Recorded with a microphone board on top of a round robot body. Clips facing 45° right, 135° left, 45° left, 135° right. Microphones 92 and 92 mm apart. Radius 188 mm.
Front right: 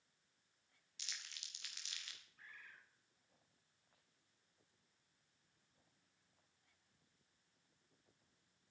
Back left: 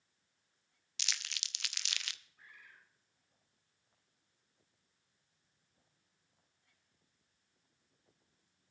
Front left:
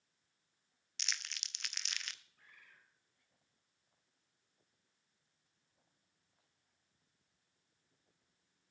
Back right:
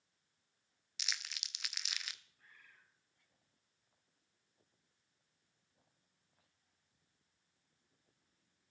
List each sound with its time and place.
1.0 s crumpling: 140° left, 0.7 m
2.4 s a bird: 55° left, 4.5 m